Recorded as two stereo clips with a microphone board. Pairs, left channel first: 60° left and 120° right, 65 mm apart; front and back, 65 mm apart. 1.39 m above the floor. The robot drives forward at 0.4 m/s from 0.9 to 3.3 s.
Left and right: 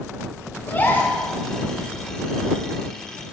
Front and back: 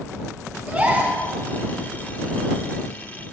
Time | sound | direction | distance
0.7 | a gasp | 120° left | 1.9 m